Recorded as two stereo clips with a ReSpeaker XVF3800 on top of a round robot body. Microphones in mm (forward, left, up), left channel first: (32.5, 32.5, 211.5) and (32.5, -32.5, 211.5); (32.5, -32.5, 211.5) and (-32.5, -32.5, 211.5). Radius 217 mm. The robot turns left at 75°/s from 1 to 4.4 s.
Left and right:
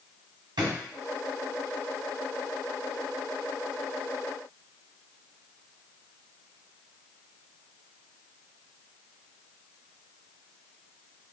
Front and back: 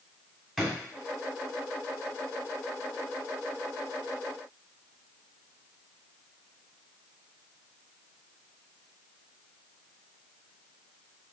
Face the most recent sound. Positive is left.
turn(degrees=10)